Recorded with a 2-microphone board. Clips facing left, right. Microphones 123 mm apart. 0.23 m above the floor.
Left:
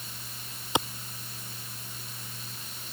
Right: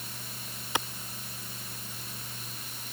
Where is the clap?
20° left (ahead or behind).